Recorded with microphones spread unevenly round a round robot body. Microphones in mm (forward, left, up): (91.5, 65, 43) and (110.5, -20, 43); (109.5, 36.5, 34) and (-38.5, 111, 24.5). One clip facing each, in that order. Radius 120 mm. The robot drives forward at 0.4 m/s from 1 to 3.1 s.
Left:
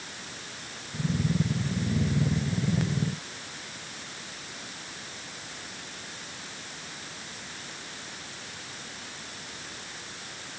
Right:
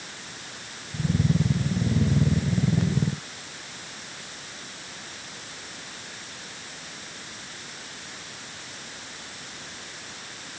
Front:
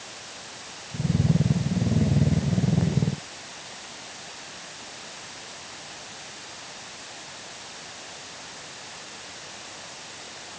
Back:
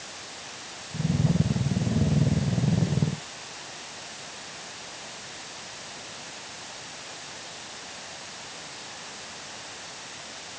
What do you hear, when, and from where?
Only background noise.